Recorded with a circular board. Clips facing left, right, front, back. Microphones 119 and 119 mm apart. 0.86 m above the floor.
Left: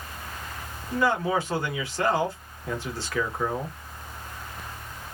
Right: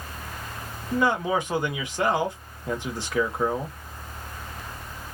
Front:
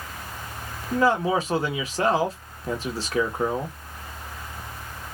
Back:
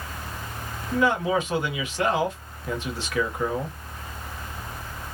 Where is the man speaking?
30° right, 0.8 m.